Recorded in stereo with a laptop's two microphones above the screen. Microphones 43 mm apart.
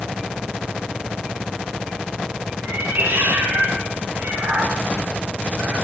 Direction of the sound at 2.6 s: 60° right (ahead or behind).